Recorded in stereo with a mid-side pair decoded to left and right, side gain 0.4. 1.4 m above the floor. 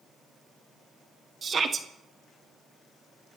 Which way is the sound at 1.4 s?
45° right.